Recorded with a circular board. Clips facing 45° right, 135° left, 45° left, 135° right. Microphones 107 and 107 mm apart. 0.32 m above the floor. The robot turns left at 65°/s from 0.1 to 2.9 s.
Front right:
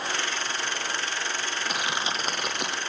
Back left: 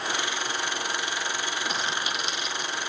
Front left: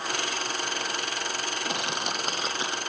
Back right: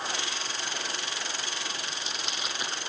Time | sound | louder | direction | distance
1.6 | crushing | front right 3 dB, front left 7 dB | 45° left | ?